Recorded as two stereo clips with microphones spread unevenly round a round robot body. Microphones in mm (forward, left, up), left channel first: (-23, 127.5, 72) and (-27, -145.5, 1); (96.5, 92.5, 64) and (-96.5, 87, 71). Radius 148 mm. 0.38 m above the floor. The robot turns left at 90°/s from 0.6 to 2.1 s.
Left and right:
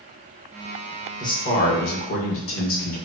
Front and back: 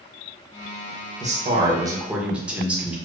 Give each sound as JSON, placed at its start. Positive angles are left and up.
{"t": 1.2, "sound": "a man speaking", "azimuth_deg": 180, "distance_m": 1.0}